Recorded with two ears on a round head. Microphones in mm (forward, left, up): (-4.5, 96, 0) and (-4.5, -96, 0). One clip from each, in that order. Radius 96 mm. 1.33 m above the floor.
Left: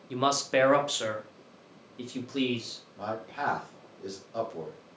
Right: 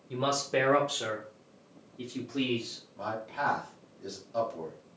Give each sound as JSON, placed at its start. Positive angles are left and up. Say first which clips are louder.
{"t": 0.1, "sound": "a man speaking", "louder": "left 3 dB", "side_deg": 35, "distance_m": 0.9}
{"t": 3.0, "sound": "a man speaking", "louder": "right 1 dB", "side_deg": 5, "distance_m": 1.6}